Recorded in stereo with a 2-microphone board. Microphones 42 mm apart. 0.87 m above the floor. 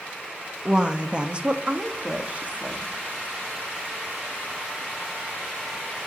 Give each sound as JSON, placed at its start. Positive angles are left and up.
{"t": 0.7, "sound": "a woman speaking", "side_deg": -20, "distance_m": 1.3}